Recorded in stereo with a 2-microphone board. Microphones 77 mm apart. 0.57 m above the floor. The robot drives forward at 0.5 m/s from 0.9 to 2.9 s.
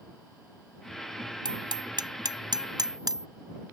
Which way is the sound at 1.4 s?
70° right (ahead or behind).